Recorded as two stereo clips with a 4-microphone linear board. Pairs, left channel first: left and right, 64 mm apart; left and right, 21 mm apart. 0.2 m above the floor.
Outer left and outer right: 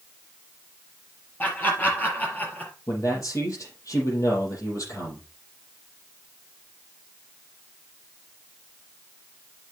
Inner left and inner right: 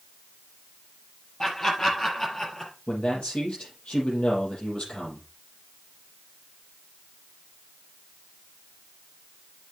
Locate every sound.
1.4 s laughter: 30° left (ahead or behind), 5 m; by 2.7 s 25° left (ahead or behind), 3.5 m
2.9 s a man speaking: 60° left (ahead or behind), 6.5 m